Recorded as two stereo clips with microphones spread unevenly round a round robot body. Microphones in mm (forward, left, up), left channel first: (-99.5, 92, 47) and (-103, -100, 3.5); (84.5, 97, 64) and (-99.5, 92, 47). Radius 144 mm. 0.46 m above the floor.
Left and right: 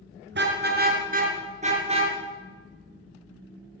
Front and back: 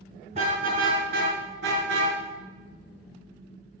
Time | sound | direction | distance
0.3 | a car horn | 115° right | 4 m